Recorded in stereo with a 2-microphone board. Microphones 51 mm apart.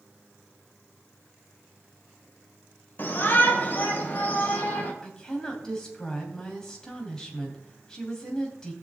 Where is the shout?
40° left (ahead or behind), 1.9 m; by 4.9 s 30° left (ahead or behind), 3 m.